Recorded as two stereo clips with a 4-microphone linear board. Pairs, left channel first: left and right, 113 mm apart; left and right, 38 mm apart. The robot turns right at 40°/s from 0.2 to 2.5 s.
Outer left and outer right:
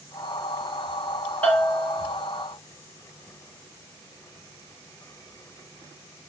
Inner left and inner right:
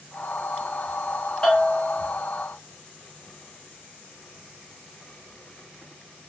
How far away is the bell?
About 1.9 m.